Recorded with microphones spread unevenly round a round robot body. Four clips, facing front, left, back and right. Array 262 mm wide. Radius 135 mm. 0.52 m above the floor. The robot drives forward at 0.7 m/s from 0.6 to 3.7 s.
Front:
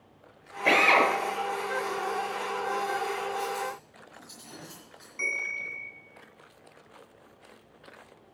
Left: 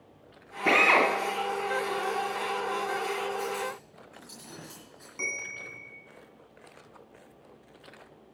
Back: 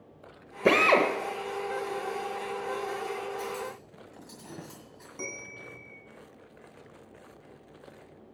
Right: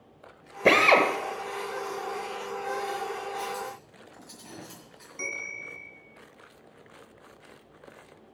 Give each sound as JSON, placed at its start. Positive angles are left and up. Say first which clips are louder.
{"t": 0.7, "sound": "a drill", "louder": "right 3 dB, even", "azimuth_deg": -125, "distance_m": 0.8}
{"t": 3.4, "sound": "cutlery clinking", "louder": "left 2 dB, front 3 dB", "azimuth_deg": -170, "distance_m": 2.0}
{"t": 5.2, "sound": "a bell", "louder": "even, front 5 dB", "azimuth_deg": 170, "distance_m": 0.9}